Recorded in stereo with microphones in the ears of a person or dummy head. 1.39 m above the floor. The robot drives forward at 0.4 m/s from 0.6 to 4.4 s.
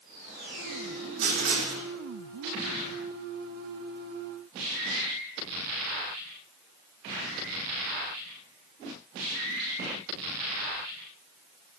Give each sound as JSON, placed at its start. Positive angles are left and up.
{"t": 1.2, "sound": "writing", "side_deg": -75, "distance_m": 4.0}